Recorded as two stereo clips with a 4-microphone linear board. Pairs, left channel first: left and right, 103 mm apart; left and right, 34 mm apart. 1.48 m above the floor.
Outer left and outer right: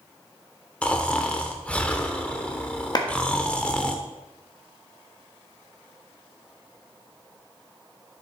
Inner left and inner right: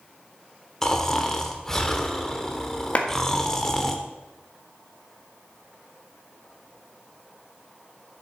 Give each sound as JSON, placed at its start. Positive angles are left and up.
{"t": 0.8, "sound": "snoring", "side_deg": 10, "distance_m": 1.1}
{"t": 3.0, "sound": "a clap", "side_deg": 40, "distance_m": 1.4}